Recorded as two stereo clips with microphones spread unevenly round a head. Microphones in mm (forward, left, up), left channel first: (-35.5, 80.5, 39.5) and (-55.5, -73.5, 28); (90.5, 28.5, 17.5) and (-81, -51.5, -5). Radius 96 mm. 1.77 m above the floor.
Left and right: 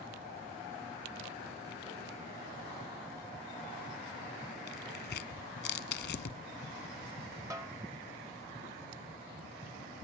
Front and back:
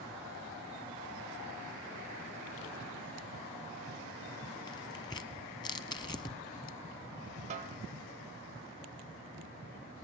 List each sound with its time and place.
4.7 s tearing paper: 95° left, 0.9 m
7.5 s a snare drum: 150° right, 0.9 m